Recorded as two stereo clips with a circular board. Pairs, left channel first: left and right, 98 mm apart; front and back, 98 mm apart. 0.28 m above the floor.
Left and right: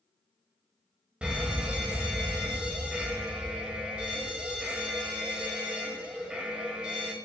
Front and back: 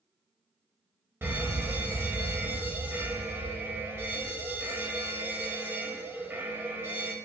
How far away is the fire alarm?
About 1.9 m.